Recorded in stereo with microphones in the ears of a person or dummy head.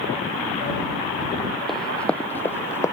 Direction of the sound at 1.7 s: Centre (ahead or behind).